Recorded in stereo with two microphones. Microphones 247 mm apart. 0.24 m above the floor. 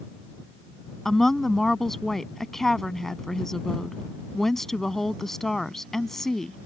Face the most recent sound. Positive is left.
turn(degrees=0)  # may be behind; listen again after turning